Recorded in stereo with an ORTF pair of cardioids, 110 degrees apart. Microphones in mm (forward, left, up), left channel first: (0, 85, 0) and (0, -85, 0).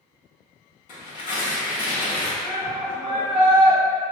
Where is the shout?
5° left, 1.5 m.